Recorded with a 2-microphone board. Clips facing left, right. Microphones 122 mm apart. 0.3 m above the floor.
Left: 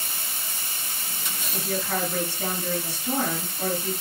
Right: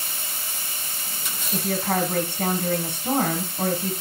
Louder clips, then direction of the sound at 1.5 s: Right 4 dB; 60° right (ahead or behind).